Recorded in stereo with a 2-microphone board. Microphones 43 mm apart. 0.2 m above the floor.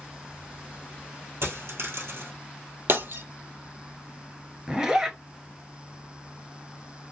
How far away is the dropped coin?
About 1.4 m.